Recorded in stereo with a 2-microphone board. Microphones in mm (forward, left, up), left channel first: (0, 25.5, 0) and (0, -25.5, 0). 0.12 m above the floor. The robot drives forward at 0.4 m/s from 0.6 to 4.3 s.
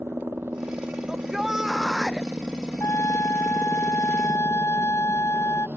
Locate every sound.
0.0 s a helicopter: 45° right (ahead or behind); by 5.8 s 35° right (ahead or behind)
1.1 s a shout: 10° right (ahead or behind)
2.8 s a trumpet: 75° left (ahead or behind); by 5.7 s 70° left (ahead or behind)